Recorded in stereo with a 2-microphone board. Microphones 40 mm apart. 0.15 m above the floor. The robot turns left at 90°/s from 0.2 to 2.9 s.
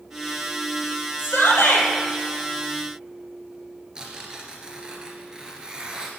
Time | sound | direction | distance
1.2 | a shout | 120° left | 4.5 m
4.0 | tearing paper | 20° right (ahead or behind) | 2.5 m